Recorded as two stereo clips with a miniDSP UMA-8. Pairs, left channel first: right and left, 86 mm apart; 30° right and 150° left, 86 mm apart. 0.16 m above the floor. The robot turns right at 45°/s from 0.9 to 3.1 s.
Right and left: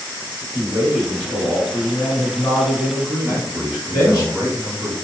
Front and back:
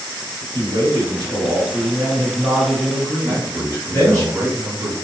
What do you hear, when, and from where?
0.5 s a man speaking: 160° left, 1.6 m; by 4.2 s 100° right, 1.6 m
3.2 s a man speaking: 165° left, 1.4 m